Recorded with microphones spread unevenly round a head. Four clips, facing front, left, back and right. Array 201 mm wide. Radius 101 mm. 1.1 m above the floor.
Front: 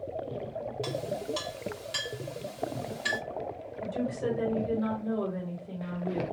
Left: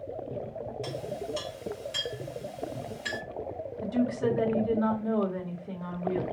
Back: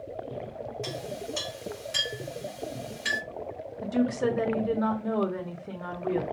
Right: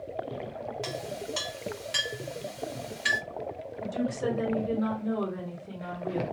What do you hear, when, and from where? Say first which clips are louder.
0.8 s a clink: left 1 dB, front 2 dB; 80° right, 1.7 m
3.8 s a woman speaking: left 3 dB, back 5 dB; straight behind, 1.1 m